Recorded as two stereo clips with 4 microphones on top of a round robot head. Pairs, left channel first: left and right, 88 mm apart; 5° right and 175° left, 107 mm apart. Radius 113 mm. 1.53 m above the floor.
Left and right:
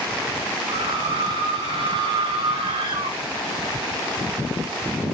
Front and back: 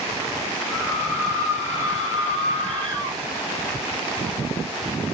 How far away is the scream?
About 5.5 m.